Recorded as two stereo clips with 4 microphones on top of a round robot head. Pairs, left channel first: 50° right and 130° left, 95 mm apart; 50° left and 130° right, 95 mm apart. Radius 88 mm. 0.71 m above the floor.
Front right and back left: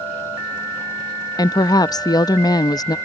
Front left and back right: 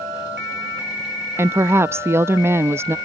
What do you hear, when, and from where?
1.4 s a woman speaking: 75° right